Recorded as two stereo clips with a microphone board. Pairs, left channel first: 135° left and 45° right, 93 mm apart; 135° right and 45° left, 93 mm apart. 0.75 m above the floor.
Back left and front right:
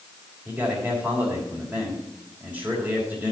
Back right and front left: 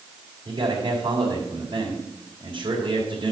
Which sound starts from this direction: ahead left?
A man speaking, at 0.5 s.